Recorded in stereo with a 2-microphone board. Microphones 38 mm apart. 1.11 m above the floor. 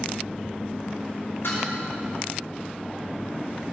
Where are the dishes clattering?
85° left, 5.5 m.